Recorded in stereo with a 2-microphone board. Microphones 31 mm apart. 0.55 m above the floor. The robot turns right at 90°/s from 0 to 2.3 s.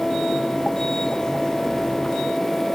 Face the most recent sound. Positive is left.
No sound to turn to.